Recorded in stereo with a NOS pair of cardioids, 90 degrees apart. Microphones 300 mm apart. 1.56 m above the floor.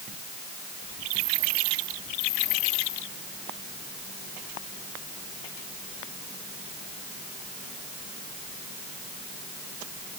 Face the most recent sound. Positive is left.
No sound to turn to.